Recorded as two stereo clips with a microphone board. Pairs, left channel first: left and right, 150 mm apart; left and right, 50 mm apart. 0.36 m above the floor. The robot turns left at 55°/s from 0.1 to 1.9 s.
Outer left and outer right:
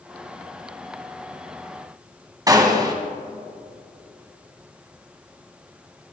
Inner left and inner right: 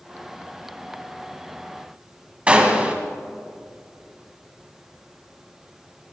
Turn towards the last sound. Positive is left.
turn(degrees=-25)  # may be behind; listen again after turning